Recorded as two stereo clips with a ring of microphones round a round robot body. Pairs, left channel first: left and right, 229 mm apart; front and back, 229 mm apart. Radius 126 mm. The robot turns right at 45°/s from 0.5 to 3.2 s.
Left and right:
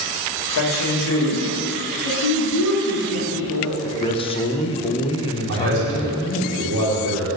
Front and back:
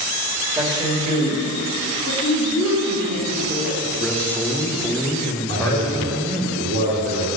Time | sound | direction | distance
0.5 | a man speaking | 100° left | 2.5 m
2.0 | a woman speaking | 70° left | 2.5 m
3.8 | a man speaking | 75° left | 0.9 m
5.5 | a man speaking | 135° right | 2 m